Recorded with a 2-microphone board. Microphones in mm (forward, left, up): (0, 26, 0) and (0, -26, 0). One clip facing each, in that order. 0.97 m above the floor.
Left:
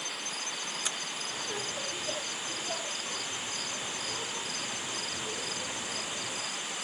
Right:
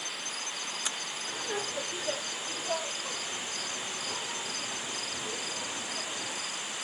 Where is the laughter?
45° right (ahead or behind), 2.5 m; by 6.4 s 40° right (ahead or behind), 6.5 m.